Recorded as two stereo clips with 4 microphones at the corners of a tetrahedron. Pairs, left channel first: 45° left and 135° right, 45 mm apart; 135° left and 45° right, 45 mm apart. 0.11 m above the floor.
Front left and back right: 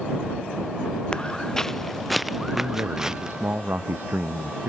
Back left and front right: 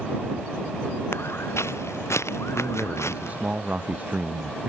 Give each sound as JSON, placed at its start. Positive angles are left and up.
{"t": 1.1, "sound": "footsteps", "azimuth_deg": 110}
{"t": 2.5, "sound": "a man speaking", "azimuth_deg": -100}